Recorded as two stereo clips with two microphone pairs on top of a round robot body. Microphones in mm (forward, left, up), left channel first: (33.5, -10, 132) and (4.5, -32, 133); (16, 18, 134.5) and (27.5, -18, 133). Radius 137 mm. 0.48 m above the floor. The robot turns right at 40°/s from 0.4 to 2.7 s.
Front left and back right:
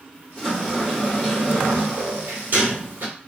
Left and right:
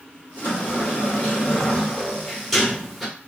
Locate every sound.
0.4 s a sliding door: 115° left, 1.8 m; by 3.1 s 155° right, 1.8 m